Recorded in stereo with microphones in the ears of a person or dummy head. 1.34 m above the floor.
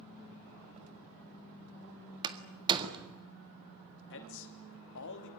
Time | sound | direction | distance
2.2 | a door slam | 25° right (ahead or behind) | 1.7 m
4.1 | a man speaking | 70° left (ahead or behind) | 2.5 m